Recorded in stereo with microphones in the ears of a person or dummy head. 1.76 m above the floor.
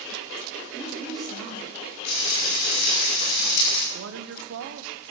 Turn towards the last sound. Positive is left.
turn(degrees=-65)  # may be behind; listen again after turning